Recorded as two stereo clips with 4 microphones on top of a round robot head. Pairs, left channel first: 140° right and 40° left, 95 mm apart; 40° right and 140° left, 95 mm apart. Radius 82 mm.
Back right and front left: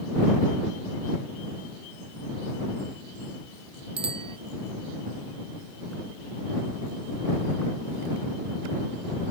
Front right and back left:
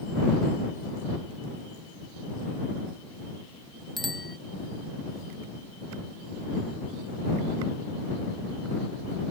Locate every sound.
4.0 s a bicycle bell: 50° left